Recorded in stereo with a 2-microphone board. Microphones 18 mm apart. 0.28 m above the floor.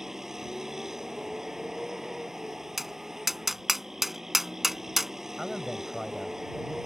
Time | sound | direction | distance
0.0 | a vehicle | 25° right (ahead or behind) | ?
2.8 | tapping | 15° right (ahead or behind) | ?
5.4 | a man speaking | 10° right (ahead or behind) | ?